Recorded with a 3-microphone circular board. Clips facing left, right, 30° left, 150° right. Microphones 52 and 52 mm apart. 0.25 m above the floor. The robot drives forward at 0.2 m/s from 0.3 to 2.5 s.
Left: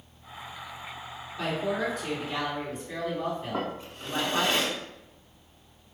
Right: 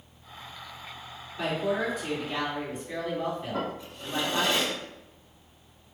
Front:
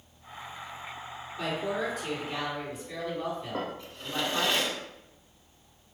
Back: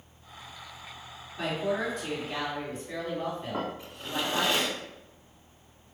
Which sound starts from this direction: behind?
A woman speaking, at 1.4 s.